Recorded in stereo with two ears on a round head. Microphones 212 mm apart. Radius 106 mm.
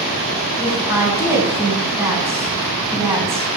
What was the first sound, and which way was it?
A woman speaking, 10° right (ahead or behind).